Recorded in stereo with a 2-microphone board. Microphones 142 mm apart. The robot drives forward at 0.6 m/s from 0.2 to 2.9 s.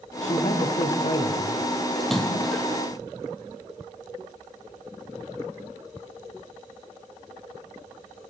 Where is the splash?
Centre (ahead or behind), 4 m.